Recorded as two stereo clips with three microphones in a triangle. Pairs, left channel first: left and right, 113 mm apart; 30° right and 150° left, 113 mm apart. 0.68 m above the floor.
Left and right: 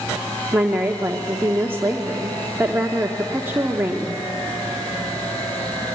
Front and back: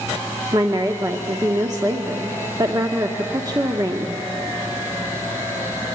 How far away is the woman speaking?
About 1.1 m.